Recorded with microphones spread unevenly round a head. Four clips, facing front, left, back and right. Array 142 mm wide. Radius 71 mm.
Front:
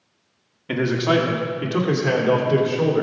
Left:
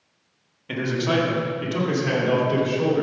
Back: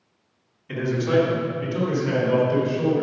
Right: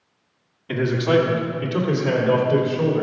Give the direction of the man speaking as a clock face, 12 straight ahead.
12 o'clock.